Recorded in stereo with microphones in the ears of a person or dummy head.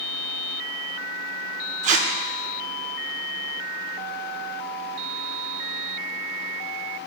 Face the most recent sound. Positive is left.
turn(degrees=-45)  # may be behind; listen again after turning